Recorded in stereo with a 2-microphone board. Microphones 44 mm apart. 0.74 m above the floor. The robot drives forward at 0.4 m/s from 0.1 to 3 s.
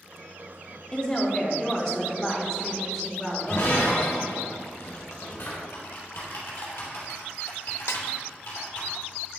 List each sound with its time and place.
0.9 s a woman speaking: 20° left (ahead or behind), 1.1 m; by 4.3 s 10° left (ahead or behind), 1.9 m
3.5 s breaking glass: 80° left, 2.5 m
5.7 s typing on a keyboard: 65° left (ahead or behind), 2.5 m
7.9 s a snare drum: 70° left (ahead or behind), 0.6 m